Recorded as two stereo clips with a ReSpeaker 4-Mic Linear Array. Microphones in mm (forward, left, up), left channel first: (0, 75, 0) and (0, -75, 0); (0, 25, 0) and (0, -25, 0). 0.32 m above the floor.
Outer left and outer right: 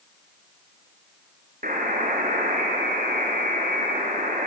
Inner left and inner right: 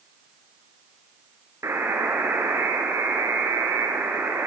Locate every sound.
1.6 s a buzzer: 65° right (ahead or behind), 3.5 m